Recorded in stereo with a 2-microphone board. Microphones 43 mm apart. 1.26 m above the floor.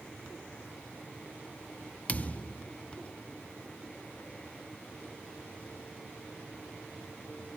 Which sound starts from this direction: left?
A thud, at 2.1 s.